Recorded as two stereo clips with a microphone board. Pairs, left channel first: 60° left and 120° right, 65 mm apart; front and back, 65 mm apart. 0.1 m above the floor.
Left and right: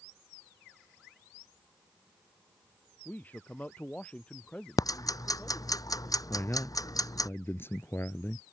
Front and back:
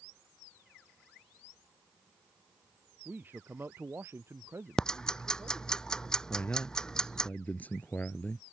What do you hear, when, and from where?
3.0 s a man speaking: 120° left; by 5.8 s 140° left
4.8 s ticking: 80° left
6.3 s a man speaking: 50° left